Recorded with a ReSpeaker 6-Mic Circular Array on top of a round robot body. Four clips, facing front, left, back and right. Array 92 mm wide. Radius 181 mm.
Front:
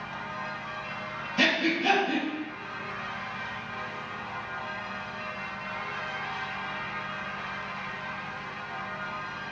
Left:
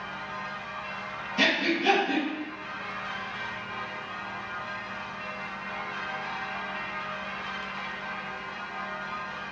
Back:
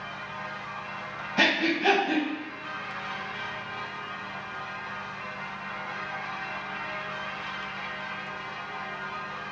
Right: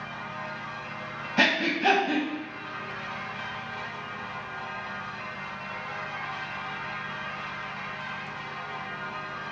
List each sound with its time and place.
1.4 s breathing: 120° right, 0.6 m